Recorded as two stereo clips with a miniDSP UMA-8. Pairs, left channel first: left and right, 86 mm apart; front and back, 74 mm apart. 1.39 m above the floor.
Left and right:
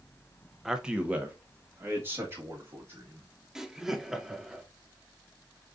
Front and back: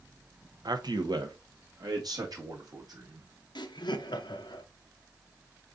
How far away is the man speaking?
About 0.6 m.